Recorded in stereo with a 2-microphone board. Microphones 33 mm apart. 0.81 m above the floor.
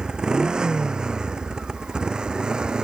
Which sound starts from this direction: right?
A motorcycle, at 0.0 s.